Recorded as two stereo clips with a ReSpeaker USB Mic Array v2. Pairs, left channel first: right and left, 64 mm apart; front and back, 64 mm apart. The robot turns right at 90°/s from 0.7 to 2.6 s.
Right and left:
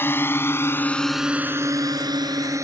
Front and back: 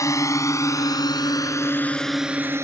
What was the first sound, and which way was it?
A drone, 35° right.